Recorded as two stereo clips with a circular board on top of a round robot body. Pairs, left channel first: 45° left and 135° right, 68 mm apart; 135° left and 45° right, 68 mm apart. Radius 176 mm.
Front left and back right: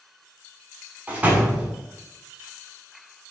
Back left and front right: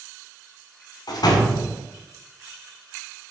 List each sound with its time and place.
1.1 s a door slam: 155° left, 1.6 m